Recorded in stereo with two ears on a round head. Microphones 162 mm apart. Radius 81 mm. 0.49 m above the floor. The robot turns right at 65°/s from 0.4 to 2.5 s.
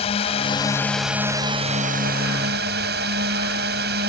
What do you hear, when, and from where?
0.0 s a drone: 140° left; by 4.1 s 85° right